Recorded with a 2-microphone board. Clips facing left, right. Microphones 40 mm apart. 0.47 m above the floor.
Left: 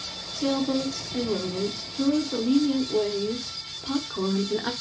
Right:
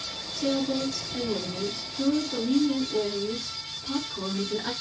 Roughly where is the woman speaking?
Left.